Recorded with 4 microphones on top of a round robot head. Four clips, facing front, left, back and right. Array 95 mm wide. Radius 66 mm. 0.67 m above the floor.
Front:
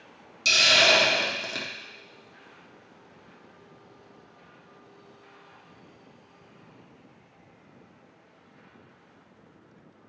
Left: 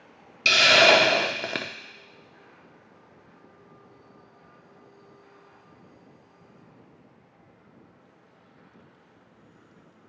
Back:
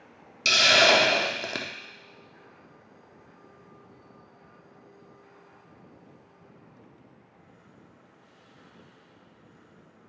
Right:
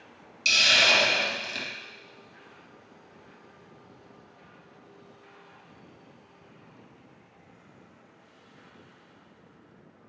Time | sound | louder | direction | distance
0.5 | a hiss | left 7 dB, back 2 dB | 110° left | 0.6 m